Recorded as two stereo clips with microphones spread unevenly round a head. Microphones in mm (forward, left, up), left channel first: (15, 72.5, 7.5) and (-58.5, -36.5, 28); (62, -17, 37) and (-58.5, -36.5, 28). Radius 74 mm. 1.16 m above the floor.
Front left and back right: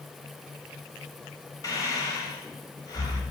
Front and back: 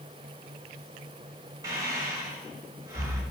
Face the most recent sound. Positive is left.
turn(degrees=120)